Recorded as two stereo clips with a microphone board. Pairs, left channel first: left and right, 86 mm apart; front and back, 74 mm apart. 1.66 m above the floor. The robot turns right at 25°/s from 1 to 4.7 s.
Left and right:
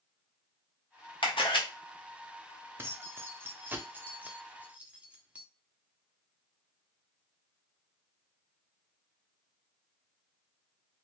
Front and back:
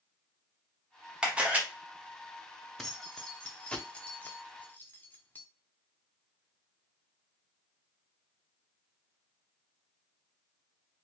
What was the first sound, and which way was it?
A camera shutter, 105° left.